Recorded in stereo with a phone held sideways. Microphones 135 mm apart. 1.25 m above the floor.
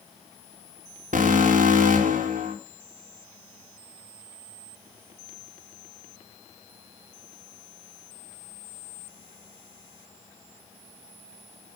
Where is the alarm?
80° right, 4.5 m.